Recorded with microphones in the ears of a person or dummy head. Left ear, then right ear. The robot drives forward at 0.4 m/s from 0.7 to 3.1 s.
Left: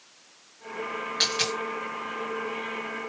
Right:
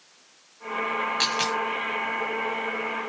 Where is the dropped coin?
15° right (ahead or behind), 3.5 m.